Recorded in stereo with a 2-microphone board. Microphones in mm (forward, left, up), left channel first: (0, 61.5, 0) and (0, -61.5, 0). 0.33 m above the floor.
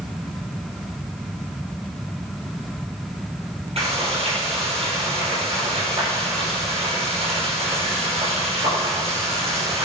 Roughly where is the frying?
Right.